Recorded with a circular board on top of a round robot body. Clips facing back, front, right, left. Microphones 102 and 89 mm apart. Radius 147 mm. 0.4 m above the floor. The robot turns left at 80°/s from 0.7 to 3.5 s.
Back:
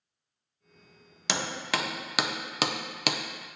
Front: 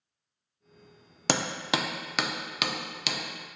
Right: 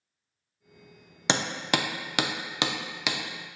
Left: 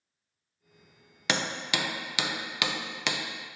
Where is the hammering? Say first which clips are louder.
Front 3 dB, right 3 dB; 30° right, 0.6 m; by 3.2 s 175° left, 0.6 m.